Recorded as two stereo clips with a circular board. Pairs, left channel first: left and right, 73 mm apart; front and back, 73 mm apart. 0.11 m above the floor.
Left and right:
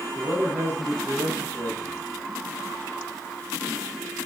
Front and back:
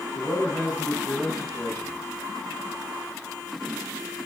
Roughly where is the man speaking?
Ahead right.